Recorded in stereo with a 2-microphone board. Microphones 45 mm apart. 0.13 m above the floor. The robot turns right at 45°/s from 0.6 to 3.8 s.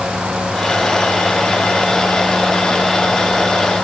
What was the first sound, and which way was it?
Only background noise.